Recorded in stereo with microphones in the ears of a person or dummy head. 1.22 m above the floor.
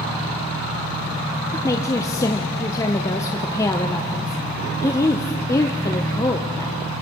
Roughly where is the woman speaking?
Centre.